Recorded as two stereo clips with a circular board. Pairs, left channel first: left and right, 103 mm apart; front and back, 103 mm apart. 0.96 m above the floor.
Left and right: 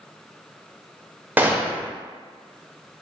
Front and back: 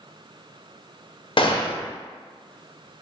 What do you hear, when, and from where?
1.4 s a gunshot: 20° right, 0.5 m